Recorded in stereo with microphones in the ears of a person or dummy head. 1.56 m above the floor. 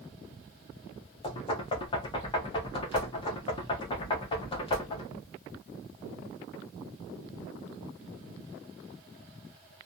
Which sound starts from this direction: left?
Knocking, at 1.2 s.